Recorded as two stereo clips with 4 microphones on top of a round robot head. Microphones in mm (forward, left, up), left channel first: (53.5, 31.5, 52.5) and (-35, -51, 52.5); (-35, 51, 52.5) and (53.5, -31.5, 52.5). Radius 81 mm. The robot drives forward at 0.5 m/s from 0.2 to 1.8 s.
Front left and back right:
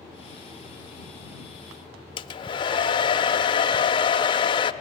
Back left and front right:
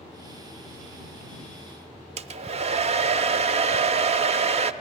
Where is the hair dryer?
10° right, 0.5 m.